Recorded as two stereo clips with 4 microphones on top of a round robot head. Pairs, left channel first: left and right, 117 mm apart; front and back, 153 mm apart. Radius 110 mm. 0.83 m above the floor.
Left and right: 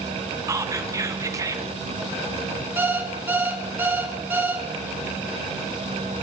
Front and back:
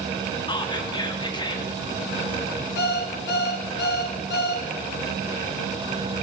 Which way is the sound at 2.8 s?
15° right.